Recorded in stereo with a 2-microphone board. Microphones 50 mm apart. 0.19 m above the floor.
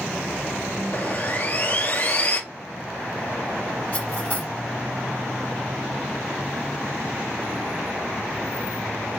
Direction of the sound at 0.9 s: 35° left (ahead or behind).